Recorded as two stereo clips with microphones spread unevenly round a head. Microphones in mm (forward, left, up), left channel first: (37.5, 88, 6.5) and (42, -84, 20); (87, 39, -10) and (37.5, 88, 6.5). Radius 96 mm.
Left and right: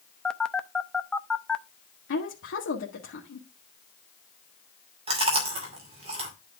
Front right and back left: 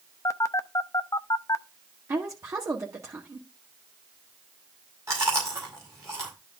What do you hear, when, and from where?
0.2 s a phone buzzing: 5° left, 0.7 m
2.1 s a woman speaking: 85° left, 1.7 m
5.1 s chewing: 150° right, 2.5 m